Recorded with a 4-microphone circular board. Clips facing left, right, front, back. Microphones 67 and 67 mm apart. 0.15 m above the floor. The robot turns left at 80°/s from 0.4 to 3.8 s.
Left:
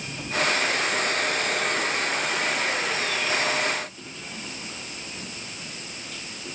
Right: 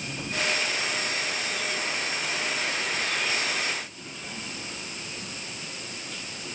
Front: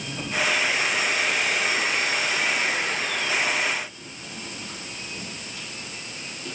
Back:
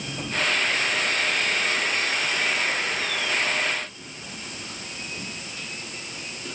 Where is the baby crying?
No baby crying in this recording.